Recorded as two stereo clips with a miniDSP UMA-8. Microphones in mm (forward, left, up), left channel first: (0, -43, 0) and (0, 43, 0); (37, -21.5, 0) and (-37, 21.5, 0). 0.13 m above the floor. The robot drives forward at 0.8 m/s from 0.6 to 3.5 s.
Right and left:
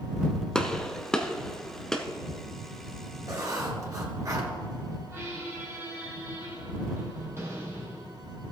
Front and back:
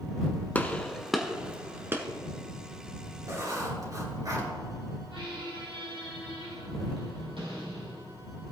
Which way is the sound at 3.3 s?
115° left.